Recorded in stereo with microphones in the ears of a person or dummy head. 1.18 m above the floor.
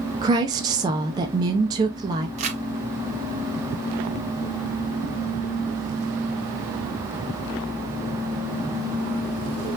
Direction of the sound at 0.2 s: 20° right (ahead or behind).